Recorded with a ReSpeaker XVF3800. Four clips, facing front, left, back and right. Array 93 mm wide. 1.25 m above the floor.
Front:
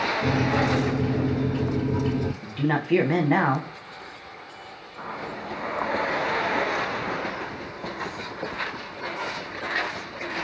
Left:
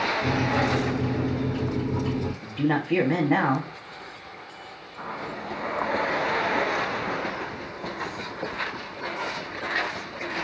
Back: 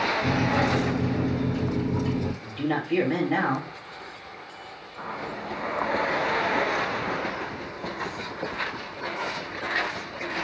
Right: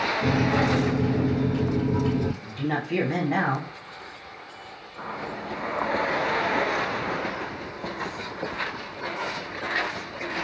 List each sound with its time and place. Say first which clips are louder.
0.2 s a microwave: right 4 dB, front 2 dB; 50° right, 0.9 m
2.4 s a man speaking: left 3 dB, front 2 dB; 30° left, 0.8 m